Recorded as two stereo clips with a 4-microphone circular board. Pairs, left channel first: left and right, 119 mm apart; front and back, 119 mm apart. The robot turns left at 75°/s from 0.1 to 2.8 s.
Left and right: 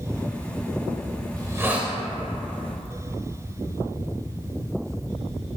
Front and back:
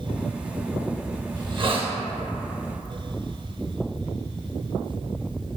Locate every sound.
1.4 s a hiss: 135° right, 0.6 m; by 1.9 s straight behind, 0.6 m